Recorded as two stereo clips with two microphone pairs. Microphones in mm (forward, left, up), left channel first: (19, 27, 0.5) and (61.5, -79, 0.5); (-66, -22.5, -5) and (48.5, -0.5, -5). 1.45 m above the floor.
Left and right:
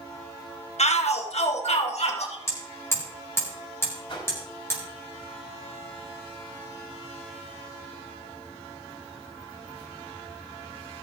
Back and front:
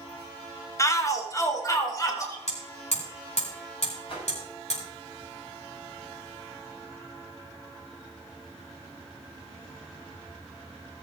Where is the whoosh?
155° left, 6 m.